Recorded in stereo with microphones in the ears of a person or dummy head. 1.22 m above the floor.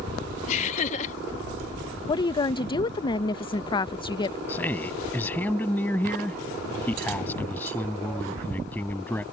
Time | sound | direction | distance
0.5 | laughter | 40° left (ahead or behind) | ?
2.1 | a woman speaking | 25° left (ahead or behind) | ?
4.5 | a man speaking | 5° left (ahead or behind) | ?